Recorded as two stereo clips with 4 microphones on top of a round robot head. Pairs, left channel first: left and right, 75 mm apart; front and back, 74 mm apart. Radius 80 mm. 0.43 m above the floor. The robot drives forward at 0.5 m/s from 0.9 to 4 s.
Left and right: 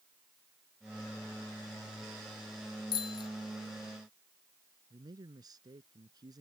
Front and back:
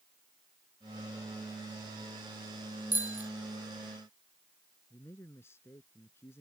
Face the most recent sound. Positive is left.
turn(degrees=-60)